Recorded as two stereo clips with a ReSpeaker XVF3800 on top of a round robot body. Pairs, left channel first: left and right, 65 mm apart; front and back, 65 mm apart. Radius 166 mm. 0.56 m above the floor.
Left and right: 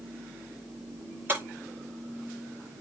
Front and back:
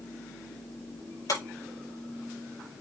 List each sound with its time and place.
1.3 s breaking glass: 30° right, 5 m